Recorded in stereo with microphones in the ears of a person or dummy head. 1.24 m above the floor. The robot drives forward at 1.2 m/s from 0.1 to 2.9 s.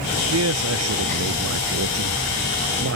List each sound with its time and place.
0.3 s a man speaking: 80° right; by 3.0 s 70° right (ahead or behind)